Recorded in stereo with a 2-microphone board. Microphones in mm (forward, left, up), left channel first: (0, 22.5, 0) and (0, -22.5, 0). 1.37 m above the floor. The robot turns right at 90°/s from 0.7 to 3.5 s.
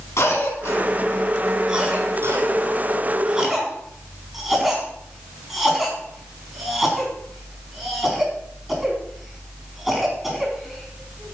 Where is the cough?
80° left, 4 m; by 11.3 s 10° right (ahead or behind), 4 m.